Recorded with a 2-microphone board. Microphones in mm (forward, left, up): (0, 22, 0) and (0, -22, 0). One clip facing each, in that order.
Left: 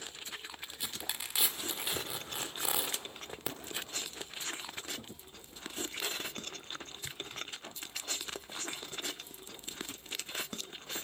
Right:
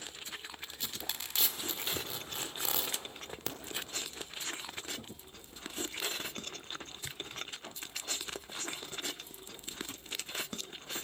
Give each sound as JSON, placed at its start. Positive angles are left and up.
{"t": 0.6, "sound": "tearing paper", "side_deg": 10, "distance_m": 1.9}